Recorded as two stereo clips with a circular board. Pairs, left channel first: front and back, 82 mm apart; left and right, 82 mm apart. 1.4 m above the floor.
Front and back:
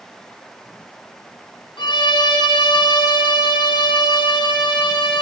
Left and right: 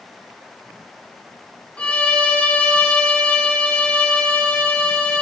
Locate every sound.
1.8 s a violin: 10° left, 5 m